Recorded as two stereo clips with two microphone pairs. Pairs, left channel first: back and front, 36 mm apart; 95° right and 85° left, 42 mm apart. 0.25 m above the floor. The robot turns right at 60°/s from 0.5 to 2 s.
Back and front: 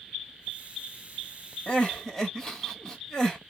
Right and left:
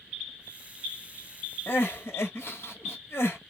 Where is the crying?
125° right, 1.2 m; by 3.4 s 105° right, 1.2 m.